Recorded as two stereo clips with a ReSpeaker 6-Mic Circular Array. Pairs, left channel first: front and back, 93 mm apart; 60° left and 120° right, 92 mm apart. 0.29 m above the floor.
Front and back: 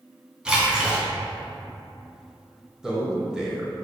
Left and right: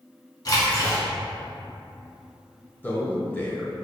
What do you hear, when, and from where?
0.5 s a splash: 100° left, 1.3 m
2.8 s a man speaking: 105° left, 0.9 m